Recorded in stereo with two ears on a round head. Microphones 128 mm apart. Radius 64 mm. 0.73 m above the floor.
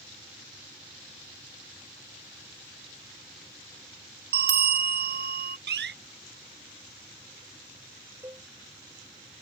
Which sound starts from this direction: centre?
A cowbell, at 8.2 s.